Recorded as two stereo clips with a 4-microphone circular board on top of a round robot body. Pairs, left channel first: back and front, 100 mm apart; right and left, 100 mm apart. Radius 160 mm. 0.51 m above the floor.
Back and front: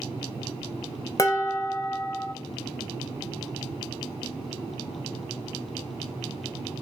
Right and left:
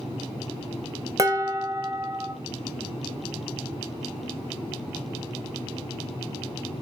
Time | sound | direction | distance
1.2 | dishes clattering | 135° left | 0.7 m